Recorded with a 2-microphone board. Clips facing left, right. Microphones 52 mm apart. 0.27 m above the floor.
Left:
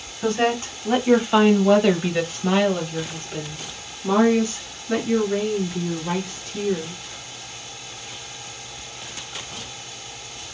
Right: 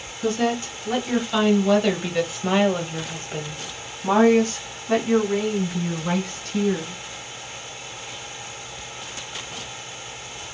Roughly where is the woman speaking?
Left.